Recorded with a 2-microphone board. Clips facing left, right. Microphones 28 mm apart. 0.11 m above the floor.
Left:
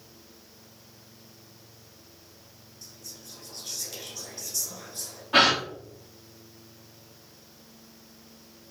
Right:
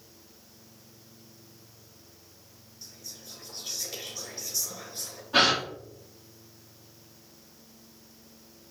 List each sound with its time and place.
2.8 s whispering: 15° right (ahead or behind), 1.6 m
5.3 s a gasp: 85° left, 2 m